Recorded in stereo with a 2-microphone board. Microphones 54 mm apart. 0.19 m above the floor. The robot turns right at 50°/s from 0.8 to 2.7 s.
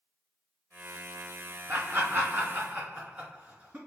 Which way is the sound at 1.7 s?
35° right (ahead or behind).